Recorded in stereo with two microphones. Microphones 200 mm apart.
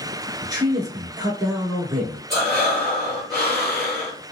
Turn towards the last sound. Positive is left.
turn(degrees=0)  # may be behind; listen again after turning